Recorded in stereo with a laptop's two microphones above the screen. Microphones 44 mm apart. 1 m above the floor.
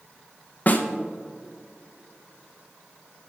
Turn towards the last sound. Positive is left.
turn(degrees=45)  # may be behind; listen again after turning